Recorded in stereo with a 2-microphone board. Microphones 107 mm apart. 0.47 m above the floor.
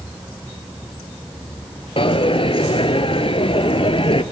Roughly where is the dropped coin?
Left.